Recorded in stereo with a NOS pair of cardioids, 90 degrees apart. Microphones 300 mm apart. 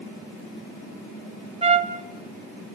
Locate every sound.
1.6 s a trumpet: 20° right, 1.1 m